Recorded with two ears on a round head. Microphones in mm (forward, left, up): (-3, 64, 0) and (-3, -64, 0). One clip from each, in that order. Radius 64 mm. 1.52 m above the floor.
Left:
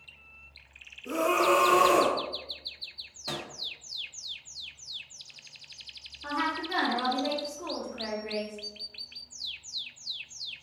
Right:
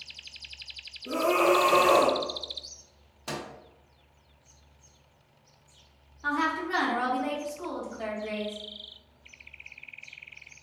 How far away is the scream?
About 1.3 m.